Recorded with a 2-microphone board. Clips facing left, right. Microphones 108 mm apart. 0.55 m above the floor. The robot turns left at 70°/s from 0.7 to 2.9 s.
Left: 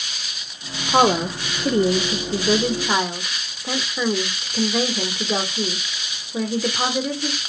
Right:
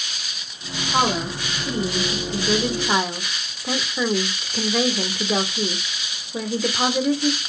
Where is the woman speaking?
140° left, 1.4 m; by 7.4 s straight ahead, 1.4 m.